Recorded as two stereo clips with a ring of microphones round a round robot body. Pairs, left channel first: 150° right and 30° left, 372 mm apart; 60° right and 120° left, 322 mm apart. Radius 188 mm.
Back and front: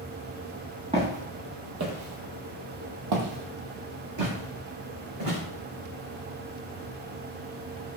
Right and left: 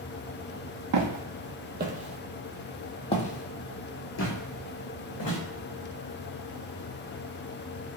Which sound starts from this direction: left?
Footsteps, at 0.9 s.